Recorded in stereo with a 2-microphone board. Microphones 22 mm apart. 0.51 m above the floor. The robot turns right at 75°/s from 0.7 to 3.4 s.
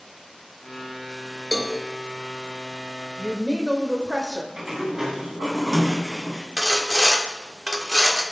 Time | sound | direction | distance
1.5 | a cowbell | 10° left (ahead or behind) | 1.0 m
3.2 | a woman speaking | 15° right (ahead or behind) | 1.7 m
4.6 | a sliding door | 25° right (ahead or behind) | 1.9 m
6.6 | sawing | 25° right (ahead or behind) | 1.1 m